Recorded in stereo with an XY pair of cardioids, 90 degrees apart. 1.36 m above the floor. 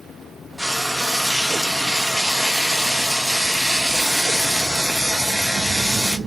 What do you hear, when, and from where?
0.6 s frying: straight ahead, 1.0 m